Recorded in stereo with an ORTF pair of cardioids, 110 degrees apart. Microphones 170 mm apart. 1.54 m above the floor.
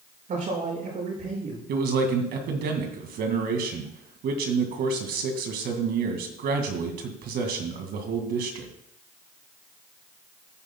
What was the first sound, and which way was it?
A man speaking, 55° right.